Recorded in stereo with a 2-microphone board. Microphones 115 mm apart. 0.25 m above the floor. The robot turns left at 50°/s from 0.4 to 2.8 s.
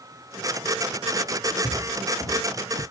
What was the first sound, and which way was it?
Footsteps, 5° right (ahead or behind).